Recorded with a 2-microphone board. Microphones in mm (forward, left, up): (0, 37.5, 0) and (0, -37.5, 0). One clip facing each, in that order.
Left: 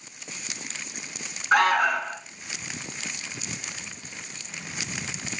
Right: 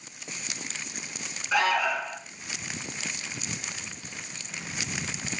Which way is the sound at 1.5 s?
60° left (ahead or behind).